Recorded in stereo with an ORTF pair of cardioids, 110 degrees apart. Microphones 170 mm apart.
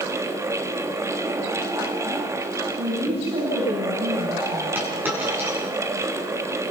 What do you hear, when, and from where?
0.0 s a fan: 15° right, 1.8 m
2.8 s a woman speaking: 35° right, 8.5 m
4.8 s a dropped coin: 10° right, 8 m